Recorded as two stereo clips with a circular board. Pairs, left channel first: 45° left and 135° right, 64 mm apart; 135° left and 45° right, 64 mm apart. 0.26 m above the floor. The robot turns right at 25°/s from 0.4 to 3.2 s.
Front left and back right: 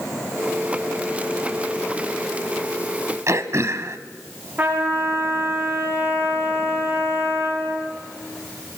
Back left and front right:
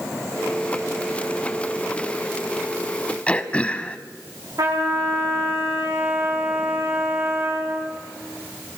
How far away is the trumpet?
About 8 m.